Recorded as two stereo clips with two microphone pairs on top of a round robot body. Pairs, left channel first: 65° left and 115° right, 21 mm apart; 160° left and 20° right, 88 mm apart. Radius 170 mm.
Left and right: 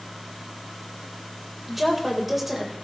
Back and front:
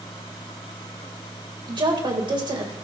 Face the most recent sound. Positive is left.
turn(degrees=-35)